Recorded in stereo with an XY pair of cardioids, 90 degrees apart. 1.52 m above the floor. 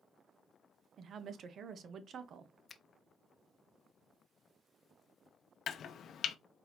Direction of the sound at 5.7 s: 70° left.